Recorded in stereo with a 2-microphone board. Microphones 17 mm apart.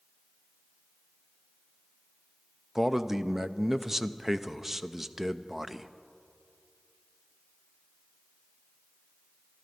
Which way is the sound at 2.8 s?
15° right (ahead or behind).